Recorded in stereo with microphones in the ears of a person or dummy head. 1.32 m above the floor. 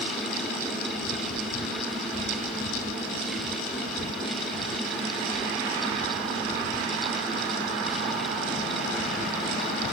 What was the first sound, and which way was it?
Only background noise.